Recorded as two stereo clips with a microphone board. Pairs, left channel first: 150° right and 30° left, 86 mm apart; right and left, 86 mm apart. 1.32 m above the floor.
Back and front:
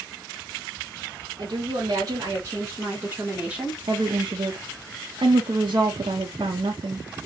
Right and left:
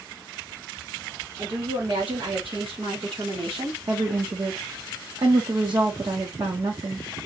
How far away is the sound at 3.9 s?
About 1.0 m.